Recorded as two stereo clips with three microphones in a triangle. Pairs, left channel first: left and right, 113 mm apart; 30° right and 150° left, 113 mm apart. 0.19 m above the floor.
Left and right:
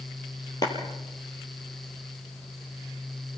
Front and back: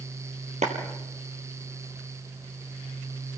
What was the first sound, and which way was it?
A clap, 145° left.